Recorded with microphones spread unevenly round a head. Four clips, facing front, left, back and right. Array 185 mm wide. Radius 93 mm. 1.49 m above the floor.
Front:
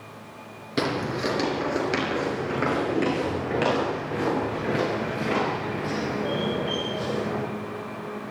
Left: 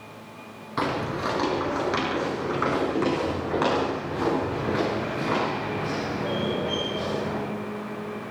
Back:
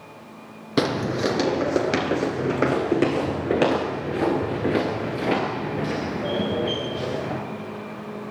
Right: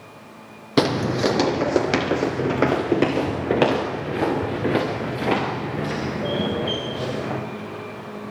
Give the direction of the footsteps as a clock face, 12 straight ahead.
4 o'clock.